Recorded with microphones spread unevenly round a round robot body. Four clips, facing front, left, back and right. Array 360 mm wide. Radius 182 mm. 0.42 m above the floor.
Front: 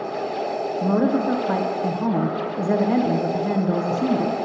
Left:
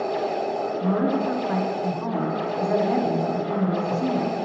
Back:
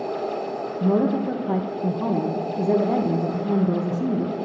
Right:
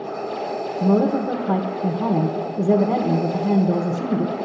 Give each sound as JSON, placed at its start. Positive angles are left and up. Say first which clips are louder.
{"t": 0.8, "sound": "a woman speaking", "louder": "right 6 dB, even", "azimuth_deg": -105, "distance_m": 1.0}